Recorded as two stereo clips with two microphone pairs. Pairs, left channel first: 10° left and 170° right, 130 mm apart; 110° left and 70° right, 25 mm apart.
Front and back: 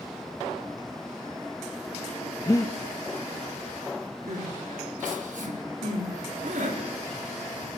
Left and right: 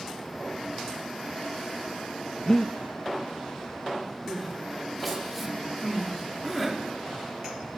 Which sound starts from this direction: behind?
Crying, at 4.3 s.